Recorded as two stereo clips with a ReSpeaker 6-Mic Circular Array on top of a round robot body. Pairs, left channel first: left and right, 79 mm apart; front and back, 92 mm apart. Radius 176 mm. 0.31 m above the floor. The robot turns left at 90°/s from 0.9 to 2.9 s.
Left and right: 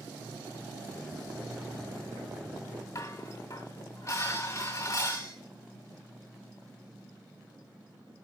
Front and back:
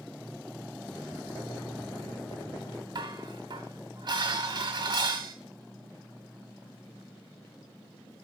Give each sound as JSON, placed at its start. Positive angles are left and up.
{"t": 3.0, "sound": "dishes clattering", "azimuth_deg": 145, "distance_m": 2.0}